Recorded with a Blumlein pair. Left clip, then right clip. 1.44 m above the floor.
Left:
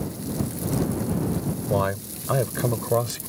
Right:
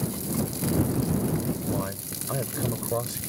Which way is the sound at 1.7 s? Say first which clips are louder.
Left 8 dB; 30° left.